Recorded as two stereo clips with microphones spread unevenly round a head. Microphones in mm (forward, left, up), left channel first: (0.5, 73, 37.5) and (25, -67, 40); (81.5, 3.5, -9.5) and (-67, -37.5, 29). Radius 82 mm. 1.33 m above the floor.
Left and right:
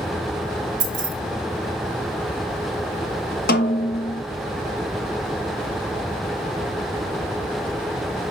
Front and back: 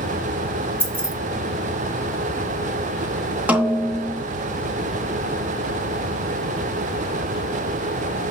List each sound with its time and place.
0.8 s keys jangling: 90° right, 1.7 m
3.5 s a snare drum: 125° left, 0.9 m